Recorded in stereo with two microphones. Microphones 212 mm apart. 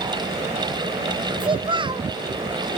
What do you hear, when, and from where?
1.4 s a child speaking: 25° right (ahead or behind), 0.5 m